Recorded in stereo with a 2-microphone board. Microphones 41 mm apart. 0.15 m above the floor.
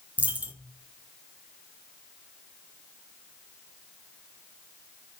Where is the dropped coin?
40° right (ahead or behind), 0.5 m.